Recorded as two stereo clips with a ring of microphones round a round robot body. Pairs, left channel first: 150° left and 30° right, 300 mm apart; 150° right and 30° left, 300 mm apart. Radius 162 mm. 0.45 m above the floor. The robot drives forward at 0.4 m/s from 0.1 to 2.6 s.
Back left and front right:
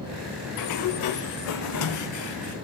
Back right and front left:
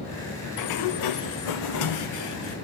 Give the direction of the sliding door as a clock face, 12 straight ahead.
6 o'clock.